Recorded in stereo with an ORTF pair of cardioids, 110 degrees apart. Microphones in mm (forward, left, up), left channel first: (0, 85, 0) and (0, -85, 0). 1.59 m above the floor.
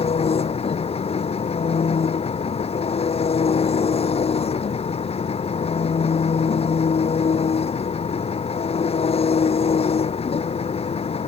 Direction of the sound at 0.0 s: 35° left.